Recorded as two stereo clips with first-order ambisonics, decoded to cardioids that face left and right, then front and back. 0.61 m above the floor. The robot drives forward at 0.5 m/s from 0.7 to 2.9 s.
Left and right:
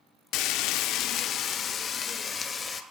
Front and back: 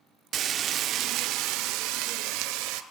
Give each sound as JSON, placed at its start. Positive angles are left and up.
{"t": 0.3, "sound": "frying", "azimuth_deg": 125, "distance_m": 0.6}